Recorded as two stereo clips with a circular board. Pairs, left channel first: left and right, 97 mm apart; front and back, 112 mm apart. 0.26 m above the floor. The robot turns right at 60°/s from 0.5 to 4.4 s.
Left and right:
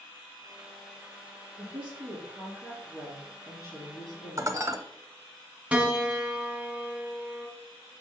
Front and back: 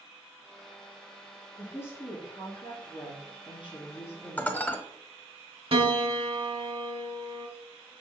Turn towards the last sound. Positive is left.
turn(degrees=-160)